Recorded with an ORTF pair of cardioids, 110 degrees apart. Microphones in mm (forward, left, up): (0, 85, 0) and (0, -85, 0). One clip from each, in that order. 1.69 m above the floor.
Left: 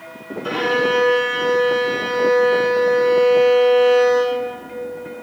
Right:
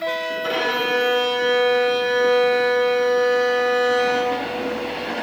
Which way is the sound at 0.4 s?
40° right.